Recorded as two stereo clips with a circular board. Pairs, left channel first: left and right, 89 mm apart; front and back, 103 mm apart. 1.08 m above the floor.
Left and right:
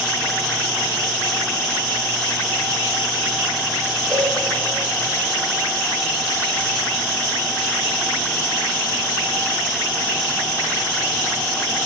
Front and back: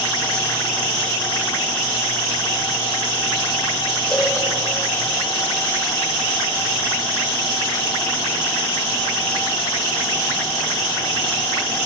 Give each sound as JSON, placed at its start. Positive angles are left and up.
{"t": 4.1, "sound": "a cowbell", "azimuth_deg": 10, "distance_m": 2.0}